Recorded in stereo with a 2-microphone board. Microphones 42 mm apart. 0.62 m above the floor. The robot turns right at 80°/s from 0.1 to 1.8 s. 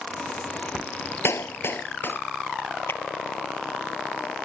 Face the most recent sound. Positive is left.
turn(degrees=70)  # may be behind; listen again after turning